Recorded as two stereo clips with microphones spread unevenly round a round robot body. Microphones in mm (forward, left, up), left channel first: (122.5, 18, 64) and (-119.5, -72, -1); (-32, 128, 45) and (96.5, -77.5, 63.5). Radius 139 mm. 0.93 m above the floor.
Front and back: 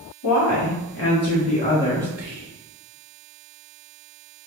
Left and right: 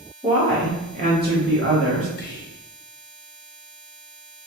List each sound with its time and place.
0.2 s a woman speaking: 20° left, 1.2 m; by 2.1 s 75° right, 1.1 m
2.2 s whispering: 135° left, 0.9 m